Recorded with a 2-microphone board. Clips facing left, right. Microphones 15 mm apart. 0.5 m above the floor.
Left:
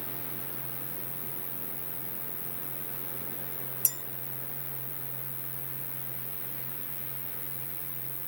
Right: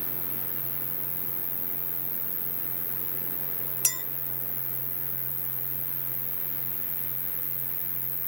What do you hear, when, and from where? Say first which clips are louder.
0.0 s an insect: right 1 dB; 40° left (ahead or behind)
3.8 s a clink: right 7 dB; 40° right (ahead or behind)